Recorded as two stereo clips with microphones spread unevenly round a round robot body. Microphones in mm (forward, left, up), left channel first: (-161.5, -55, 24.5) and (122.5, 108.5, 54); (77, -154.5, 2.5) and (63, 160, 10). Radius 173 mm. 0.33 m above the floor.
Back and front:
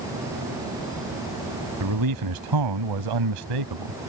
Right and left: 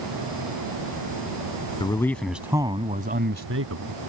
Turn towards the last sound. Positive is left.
turn(degrees=55)